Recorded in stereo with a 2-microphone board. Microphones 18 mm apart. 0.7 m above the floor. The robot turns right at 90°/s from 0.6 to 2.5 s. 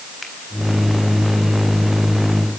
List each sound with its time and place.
0.2 s a finger snap: 5° left (ahead or behind), 4.5 m